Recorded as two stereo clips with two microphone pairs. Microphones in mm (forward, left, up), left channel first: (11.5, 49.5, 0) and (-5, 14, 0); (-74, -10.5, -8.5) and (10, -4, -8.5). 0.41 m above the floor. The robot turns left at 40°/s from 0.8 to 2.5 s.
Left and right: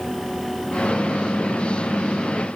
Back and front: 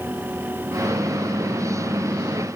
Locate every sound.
Only background noise.